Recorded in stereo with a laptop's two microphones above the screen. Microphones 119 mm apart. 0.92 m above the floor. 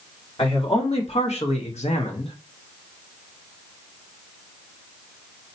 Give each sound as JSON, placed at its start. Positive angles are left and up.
{"t": 0.4, "sound": "a man speaking", "side_deg": 60, "distance_m": 1.7}